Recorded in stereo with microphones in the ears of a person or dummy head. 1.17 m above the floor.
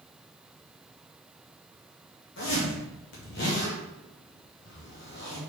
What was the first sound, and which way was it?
A zipper, 55° left (ahead or behind).